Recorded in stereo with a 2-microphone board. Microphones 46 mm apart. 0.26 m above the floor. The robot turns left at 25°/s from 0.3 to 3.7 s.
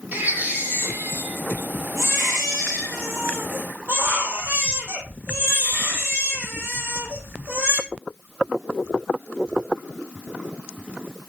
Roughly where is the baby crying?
Ahead right.